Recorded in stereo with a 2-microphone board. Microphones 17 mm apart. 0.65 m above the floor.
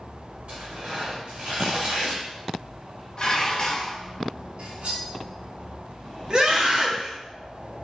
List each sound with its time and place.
0.5 s tearing paper: 60° right (ahead or behind), 1.6 m
3.2 s dishes clattering: 45° left (ahead or behind), 0.6 m
4.6 s cutlery clinking: 65° right (ahead or behind), 0.7 m
6.3 s a scream: 40° right (ahead or behind), 0.7 m